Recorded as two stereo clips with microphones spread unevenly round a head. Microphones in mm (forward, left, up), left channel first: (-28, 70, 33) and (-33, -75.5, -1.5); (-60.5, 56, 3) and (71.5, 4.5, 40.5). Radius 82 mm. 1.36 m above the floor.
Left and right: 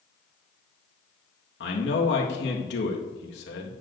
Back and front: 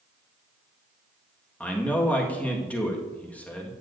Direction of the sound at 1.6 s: 75° left.